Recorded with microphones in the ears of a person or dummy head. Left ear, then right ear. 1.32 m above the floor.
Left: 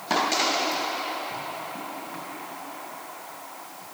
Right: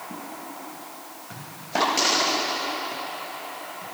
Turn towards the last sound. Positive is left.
No sound to turn to.